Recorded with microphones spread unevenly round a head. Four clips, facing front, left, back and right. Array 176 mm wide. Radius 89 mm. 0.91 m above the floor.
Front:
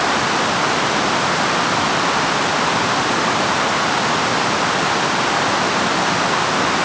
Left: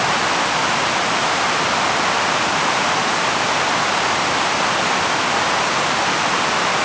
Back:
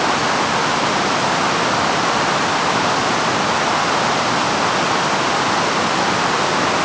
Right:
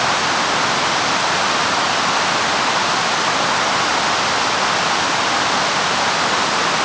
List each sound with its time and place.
Only background noise.